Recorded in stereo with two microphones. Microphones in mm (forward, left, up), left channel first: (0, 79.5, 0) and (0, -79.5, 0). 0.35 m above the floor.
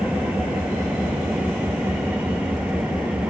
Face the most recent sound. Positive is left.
turn(degrees=-10)  # may be behind; listen again after turning